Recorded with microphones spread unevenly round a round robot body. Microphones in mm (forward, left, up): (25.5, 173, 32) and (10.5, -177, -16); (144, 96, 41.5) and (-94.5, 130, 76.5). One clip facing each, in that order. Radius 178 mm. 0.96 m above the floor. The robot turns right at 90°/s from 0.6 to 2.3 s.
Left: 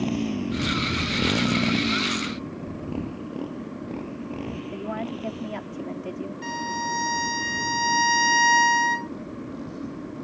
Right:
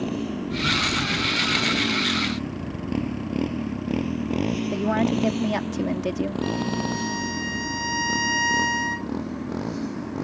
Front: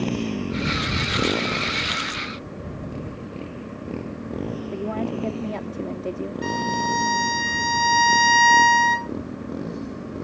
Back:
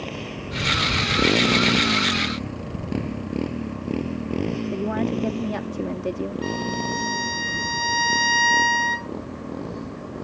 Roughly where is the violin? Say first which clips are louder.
Right 8 dB, even; ahead.